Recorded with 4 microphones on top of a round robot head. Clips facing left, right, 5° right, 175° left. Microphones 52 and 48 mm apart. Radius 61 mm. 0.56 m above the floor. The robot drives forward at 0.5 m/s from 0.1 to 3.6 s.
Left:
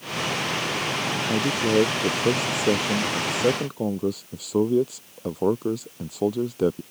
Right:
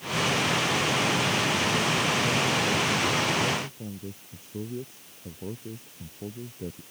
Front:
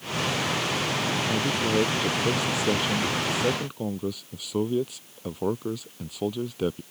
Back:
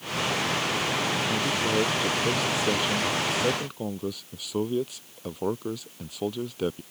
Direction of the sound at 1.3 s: 75° left.